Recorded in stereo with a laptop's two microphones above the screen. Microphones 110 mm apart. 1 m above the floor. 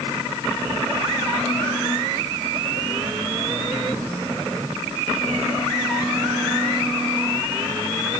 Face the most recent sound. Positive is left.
No sound to turn to.